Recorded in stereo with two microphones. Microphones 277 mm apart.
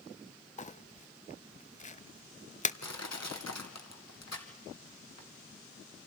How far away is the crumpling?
About 0.6 m.